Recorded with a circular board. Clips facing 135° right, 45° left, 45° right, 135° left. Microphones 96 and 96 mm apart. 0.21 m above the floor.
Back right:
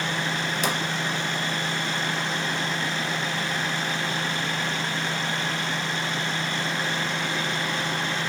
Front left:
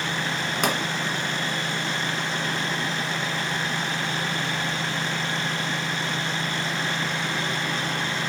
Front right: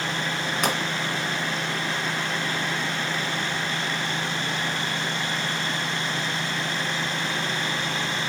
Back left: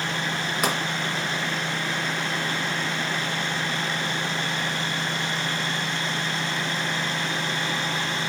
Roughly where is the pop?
Ahead left.